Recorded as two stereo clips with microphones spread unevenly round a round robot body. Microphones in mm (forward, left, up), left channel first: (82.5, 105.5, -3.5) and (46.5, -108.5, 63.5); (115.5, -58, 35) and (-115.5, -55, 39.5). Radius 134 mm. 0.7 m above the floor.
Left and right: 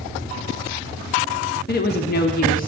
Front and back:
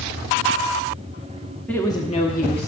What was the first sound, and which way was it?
A woman speaking, 80° left.